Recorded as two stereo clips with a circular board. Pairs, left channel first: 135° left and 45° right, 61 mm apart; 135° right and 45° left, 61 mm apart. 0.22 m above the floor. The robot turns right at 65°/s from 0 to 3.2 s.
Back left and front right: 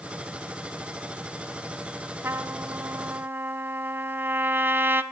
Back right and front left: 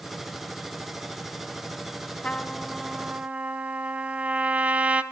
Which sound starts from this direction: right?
A trumpet, at 2.2 s.